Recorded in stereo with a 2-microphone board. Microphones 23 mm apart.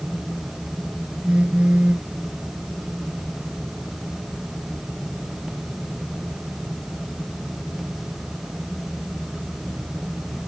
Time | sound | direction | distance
1.2 | a phone buzzing | 55° right (ahead or behind) | ?